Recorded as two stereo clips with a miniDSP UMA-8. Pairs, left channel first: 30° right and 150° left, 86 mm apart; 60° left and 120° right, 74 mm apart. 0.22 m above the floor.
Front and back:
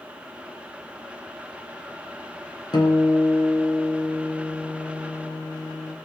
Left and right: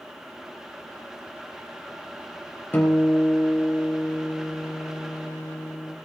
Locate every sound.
2.7 s a guitar: straight ahead, 3.5 m